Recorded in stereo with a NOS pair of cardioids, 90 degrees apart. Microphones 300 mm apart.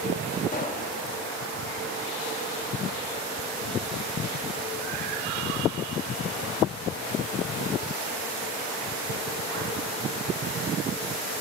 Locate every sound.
0.5 s a pop: 30° left, 3.5 m